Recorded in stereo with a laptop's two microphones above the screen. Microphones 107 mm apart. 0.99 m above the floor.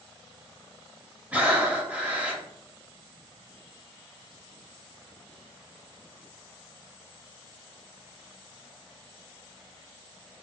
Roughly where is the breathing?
Centre.